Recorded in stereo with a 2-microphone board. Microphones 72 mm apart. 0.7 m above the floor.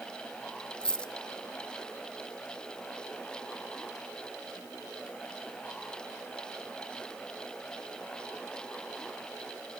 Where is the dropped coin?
10° left (ahead or behind), 0.8 m.